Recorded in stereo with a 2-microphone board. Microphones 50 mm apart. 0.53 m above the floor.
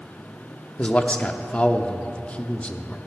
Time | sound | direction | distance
0.8 | a man speaking | 25° left (ahead or behind) | 0.7 m